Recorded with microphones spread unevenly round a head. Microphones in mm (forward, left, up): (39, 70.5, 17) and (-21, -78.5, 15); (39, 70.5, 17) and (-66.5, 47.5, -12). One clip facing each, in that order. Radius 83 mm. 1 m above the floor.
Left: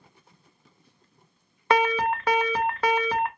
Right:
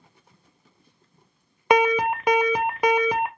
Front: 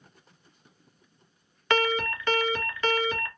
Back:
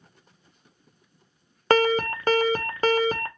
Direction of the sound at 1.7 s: 175° left.